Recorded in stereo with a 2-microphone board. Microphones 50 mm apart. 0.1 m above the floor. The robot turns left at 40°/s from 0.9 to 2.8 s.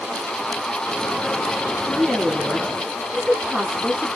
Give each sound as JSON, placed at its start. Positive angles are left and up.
{"t": 1.9, "sound": "a woman speaking", "side_deg": 15, "distance_m": 1.1}